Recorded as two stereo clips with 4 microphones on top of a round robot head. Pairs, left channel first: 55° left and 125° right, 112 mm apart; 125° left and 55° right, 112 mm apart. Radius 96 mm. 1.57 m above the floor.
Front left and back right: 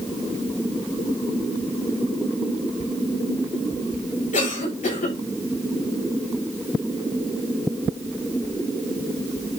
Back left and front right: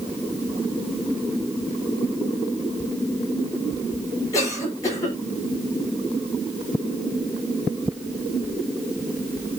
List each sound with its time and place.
4.3 s a cough: 65° left, 6.5 m